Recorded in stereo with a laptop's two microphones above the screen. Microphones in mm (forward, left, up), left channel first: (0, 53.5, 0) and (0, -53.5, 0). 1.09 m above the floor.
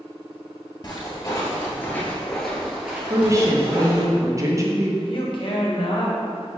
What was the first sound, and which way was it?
Footsteps, 35° left (ahead or behind).